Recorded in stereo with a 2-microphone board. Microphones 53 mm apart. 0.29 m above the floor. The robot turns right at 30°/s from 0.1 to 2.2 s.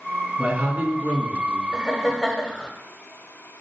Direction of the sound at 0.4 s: 40° right.